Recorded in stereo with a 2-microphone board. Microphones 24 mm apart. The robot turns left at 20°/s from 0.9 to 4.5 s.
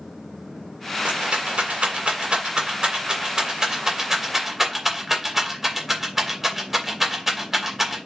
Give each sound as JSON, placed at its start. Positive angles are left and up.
{"t": 1.1, "sound": "a rattle", "side_deg": -55, "distance_m": 2.5}